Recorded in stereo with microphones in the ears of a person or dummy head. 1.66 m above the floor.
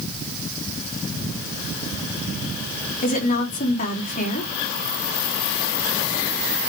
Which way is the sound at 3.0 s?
50° left (ahead or behind).